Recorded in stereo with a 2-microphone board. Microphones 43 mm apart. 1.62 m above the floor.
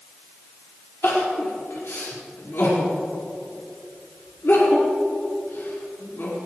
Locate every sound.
1.0 s crying: 75° left (ahead or behind), 5 m